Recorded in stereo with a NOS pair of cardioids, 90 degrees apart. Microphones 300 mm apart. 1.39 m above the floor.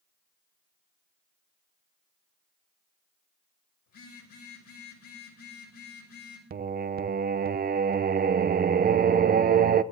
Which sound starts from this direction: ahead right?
Singing, at 6.5 s.